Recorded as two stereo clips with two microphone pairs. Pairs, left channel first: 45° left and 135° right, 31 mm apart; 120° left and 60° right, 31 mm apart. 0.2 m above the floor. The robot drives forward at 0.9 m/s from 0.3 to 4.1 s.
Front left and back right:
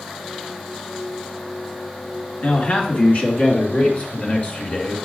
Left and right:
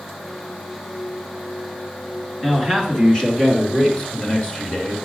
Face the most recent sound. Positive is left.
turn(degrees=85)